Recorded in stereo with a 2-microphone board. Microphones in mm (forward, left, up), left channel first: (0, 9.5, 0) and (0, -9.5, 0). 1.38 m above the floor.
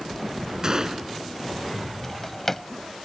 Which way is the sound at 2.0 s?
15° left (ahead or behind).